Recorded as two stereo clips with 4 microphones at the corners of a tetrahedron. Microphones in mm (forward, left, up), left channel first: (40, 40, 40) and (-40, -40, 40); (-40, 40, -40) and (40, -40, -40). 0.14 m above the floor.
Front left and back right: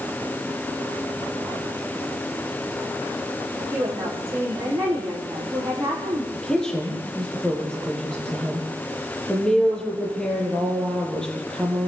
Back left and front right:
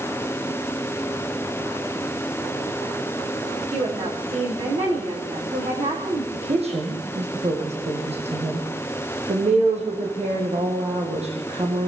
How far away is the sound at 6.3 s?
About 6 m.